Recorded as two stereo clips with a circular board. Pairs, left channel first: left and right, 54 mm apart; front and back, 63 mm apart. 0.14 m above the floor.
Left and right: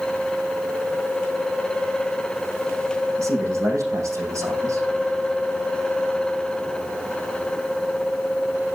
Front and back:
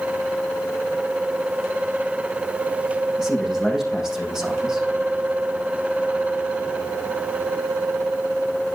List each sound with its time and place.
3.2 s a man speaking: 100° right, 5.5 m